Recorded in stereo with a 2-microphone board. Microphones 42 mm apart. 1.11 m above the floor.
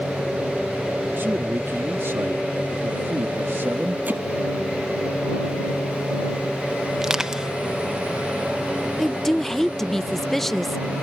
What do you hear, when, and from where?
1.2 s a man speaking: 60° right (ahead or behind); by 4.0 s 70° right (ahead or behind)
4.1 s hammering: 40° right (ahead or behind)
7.0 s crushing: 15° right (ahead or behind)
9.0 s a woman speaking: 10° left (ahead or behind)